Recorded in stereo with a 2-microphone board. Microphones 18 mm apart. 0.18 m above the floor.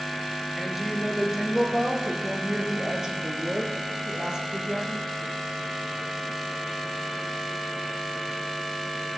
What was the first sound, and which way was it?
A woman speaking, 15° right (ahead or behind).